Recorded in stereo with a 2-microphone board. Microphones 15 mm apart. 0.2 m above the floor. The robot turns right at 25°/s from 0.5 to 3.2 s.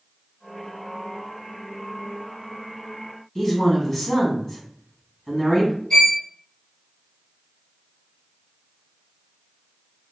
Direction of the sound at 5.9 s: 60° left (ahead or behind).